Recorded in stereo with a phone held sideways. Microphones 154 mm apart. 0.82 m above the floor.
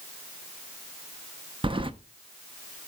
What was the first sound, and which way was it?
Keys jangling, 35° right (ahead or behind).